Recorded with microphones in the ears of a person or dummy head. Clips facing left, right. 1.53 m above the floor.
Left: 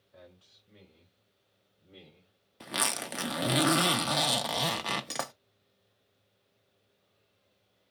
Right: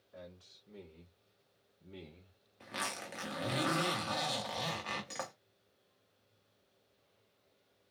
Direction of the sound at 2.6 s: 65° left (ahead or behind).